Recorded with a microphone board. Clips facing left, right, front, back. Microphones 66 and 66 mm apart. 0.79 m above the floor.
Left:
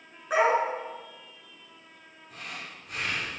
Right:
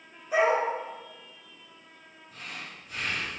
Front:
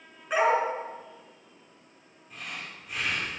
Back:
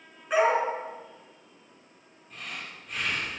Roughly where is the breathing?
Left.